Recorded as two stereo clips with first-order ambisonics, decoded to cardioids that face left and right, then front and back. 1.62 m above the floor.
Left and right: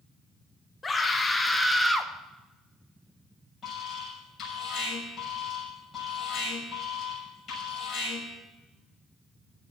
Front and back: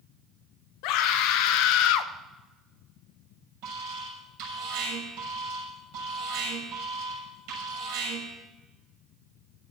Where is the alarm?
160° left, 7 m.